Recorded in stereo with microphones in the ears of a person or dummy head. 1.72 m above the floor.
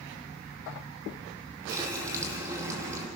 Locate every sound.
1.7 s a running tap: 15° right (ahead or behind), 2 m